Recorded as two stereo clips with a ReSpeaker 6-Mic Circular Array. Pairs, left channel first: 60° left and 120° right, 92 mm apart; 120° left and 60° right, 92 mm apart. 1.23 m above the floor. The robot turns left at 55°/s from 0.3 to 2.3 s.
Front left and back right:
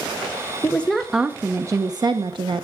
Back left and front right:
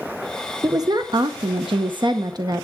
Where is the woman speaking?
10° right, 0.7 m; by 2.6 s 100° right, 0.7 m.